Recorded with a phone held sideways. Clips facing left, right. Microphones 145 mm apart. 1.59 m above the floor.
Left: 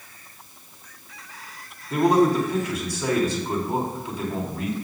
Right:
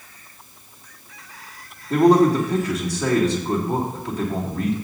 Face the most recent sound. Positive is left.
turn(degrees=-70)  # may be behind; listen again after turning